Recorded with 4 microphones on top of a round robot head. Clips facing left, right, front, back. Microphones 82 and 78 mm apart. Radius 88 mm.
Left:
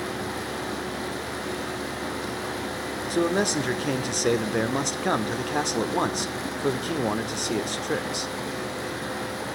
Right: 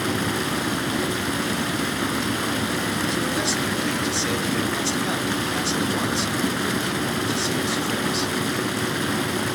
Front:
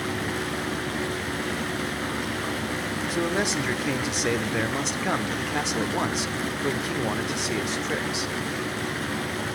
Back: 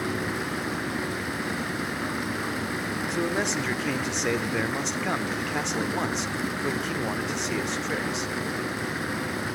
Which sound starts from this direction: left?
A man speaking, at 3.1 s.